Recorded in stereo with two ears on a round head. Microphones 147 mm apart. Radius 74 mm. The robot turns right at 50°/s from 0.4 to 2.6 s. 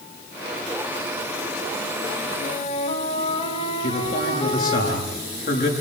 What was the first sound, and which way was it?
A flute, 50° left (ahead or behind).